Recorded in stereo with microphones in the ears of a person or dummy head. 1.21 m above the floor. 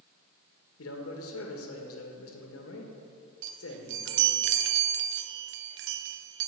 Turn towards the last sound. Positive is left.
turn(degrees=-70)  # may be behind; listen again after turning